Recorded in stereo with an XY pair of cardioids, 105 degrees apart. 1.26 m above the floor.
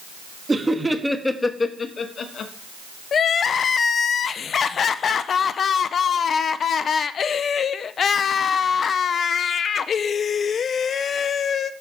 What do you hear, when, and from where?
0.5 s laughter: 20° right, 1.6 m; by 2.5 s 60° left, 1.8 m
3.1 s crying: 50° left, 0.6 m